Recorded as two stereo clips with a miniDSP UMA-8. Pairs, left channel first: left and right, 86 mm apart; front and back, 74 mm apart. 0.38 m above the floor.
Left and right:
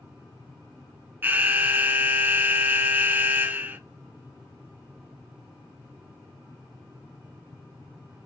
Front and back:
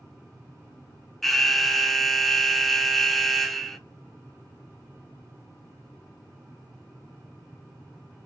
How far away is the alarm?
About 0.6 m.